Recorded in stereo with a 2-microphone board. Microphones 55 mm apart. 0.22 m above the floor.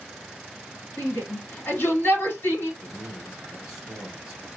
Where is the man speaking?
15° right (ahead or behind), 1.1 m.